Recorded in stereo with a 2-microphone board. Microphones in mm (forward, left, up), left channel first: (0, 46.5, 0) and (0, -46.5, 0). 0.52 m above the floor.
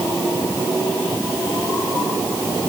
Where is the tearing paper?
I don't hear tearing paper.